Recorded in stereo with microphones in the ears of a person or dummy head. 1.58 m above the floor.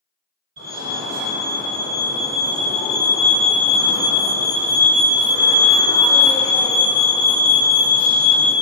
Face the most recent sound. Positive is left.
turn(degrees=-55)  # may be behind; listen again after turning